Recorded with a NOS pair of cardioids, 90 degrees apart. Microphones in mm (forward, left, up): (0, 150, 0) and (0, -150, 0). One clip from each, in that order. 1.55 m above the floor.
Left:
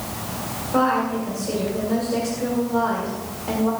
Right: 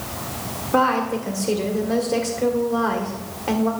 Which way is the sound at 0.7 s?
55° right.